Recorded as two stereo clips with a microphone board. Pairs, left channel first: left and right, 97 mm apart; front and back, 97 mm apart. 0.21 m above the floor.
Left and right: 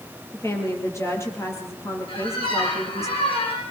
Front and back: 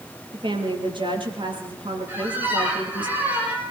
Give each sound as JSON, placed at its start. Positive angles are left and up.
{"t": 0.3, "sound": "a woman speaking", "azimuth_deg": 150, "distance_m": 5.5}
{"t": 2.1, "sound": "a squeak", "azimuth_deg": 110, "distance_m": 8.5}